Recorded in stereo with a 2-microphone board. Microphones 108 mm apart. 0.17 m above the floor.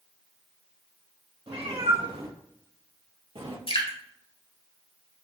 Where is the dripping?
65° left (ahead or behind), 2 m.